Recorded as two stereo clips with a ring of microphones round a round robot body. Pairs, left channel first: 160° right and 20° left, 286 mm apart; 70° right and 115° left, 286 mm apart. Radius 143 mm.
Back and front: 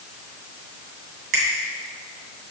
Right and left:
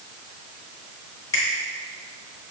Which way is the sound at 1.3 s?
10° left.